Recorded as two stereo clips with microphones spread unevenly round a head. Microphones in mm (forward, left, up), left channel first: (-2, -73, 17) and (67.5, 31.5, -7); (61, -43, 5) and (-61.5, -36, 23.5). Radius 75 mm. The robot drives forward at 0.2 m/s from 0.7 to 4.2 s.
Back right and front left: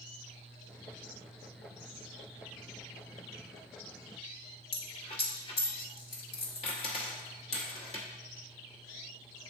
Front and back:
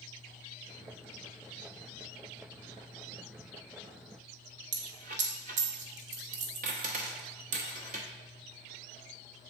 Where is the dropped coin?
175° right, 0.9 m.